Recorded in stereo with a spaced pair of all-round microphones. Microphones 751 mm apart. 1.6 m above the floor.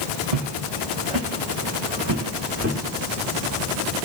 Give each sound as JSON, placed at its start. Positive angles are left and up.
{"t": 0.3, "sound": "footsteps", "side_deg": -55, "distance_m": 2.5}